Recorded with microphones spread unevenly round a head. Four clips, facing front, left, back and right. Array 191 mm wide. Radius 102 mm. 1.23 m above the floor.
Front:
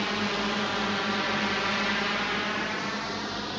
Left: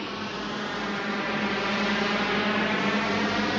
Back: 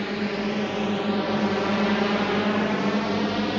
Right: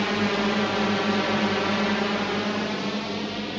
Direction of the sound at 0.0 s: 110° right.